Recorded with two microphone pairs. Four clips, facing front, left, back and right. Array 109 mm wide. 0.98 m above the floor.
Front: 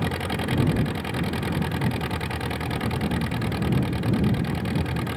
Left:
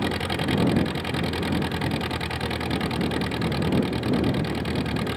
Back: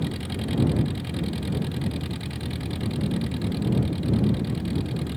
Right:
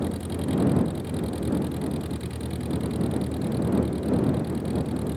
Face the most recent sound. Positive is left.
turn(degrees=50)